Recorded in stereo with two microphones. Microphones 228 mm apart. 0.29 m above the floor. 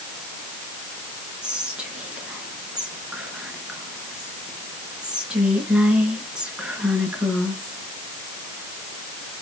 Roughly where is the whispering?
Centre.